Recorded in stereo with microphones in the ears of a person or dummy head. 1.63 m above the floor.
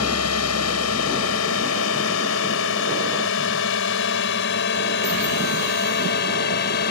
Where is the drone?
75° left (ahead or behind); by 6.9 s 50° left (ahead or behind).